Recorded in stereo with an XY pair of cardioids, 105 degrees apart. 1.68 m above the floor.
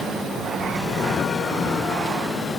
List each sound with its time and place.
Only background noise.